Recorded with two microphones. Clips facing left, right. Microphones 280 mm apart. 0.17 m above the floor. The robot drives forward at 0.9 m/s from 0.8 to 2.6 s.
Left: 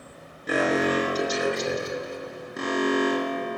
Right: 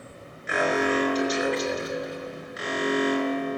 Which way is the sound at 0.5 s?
45° left (ahead or behind).